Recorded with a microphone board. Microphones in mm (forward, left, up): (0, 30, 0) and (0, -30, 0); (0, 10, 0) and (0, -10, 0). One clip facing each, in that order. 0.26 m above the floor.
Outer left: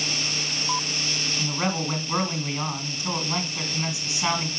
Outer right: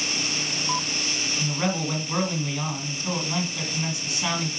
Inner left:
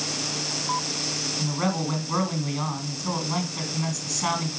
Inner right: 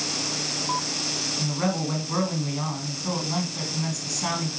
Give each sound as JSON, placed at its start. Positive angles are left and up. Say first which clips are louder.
{"t": 1.4, "sound": "a man speaking", "louder": "even, even", "side_deg": 15, "distance_m": 2.0}